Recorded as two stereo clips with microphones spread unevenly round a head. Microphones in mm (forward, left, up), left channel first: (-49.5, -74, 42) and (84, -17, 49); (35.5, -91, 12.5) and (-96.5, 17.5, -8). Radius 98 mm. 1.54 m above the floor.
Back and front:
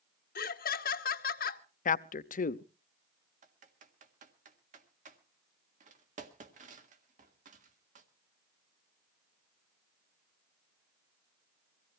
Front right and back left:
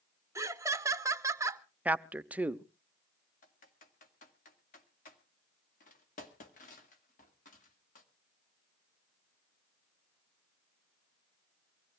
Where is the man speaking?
140° right, 0.7 m.